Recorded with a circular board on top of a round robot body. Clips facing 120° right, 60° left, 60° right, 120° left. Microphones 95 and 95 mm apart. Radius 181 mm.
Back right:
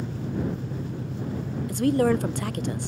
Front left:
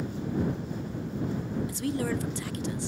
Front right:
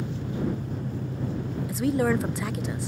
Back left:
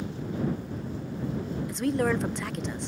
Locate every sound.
0.0 s an engine running: 100° right
1.7 s a woman speaking: 145° right